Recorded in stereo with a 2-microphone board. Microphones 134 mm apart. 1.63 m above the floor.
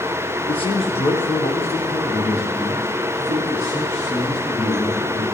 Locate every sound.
0.5 s a man speaking: 40° left (ahead or behind), 1.2 m; by 5.2 s 60° left (ahead or behind), 4.5 m